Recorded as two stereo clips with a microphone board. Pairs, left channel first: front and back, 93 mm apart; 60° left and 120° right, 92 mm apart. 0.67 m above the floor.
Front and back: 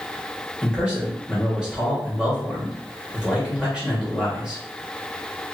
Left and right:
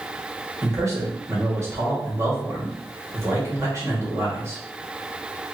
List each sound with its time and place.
0.6 s a man speaking: 110° right, 1.2 m